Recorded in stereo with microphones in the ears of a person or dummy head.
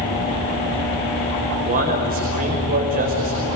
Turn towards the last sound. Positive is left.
turn(degrees=-45)  # may be behind; listen again after turning